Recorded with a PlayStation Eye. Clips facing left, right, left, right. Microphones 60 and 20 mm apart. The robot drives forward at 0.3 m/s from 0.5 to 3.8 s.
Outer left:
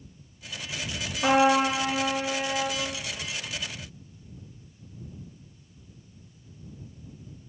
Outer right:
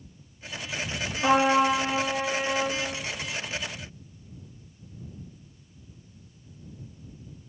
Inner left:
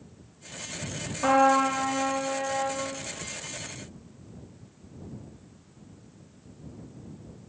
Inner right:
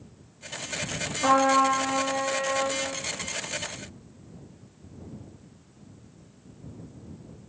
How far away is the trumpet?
About 1.0 m.